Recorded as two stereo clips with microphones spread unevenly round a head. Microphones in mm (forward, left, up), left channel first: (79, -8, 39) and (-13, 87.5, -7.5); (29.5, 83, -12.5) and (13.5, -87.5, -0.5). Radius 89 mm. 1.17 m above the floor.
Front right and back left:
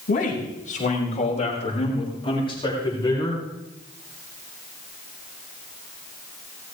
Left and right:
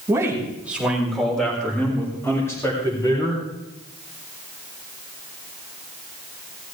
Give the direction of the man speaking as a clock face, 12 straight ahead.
1 o'clock.